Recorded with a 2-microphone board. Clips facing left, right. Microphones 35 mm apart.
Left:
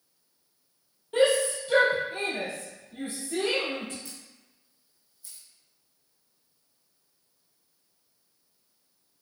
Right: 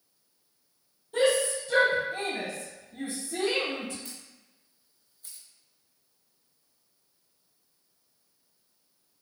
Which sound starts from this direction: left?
A shout, at 1.1 s.